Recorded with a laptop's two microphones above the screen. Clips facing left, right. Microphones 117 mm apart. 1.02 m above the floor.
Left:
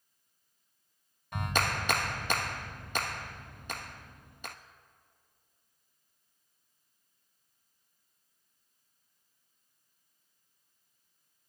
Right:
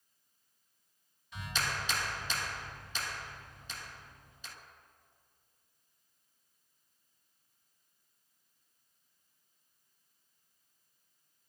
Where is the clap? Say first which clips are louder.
Left 6 dB; 60° left (ahead or behind), 0.6 m.